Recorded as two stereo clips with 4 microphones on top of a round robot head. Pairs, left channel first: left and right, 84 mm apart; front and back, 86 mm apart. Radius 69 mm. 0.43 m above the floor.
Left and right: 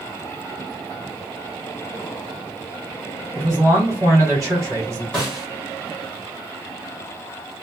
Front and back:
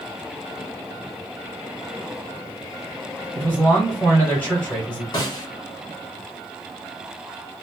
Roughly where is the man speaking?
Ahead right.